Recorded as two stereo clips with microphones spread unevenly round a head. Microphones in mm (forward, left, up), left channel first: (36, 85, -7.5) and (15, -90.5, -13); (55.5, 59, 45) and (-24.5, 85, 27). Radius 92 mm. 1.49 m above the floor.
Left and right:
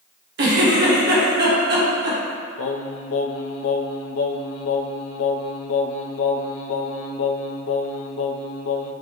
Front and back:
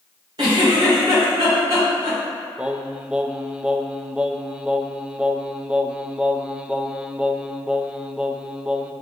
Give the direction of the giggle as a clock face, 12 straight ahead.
4 o'clock.